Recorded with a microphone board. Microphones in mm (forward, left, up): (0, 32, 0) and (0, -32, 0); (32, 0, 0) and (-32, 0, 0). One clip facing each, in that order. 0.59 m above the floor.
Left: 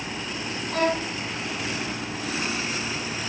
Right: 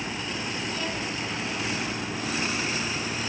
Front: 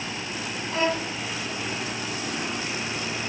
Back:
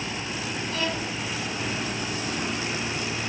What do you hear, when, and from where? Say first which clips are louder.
0.7 s a violin: left 7 dB, front 6 dB; 60° left